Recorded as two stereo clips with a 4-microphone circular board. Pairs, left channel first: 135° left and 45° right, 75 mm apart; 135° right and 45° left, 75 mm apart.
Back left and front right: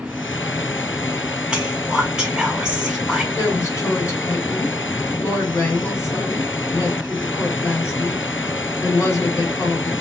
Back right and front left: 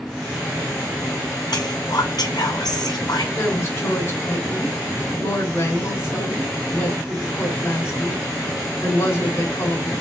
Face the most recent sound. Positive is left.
turn(degrees=175)